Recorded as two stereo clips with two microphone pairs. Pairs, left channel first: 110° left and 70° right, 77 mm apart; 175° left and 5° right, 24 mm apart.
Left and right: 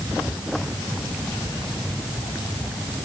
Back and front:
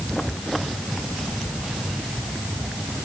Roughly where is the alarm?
I don't hear an alarm.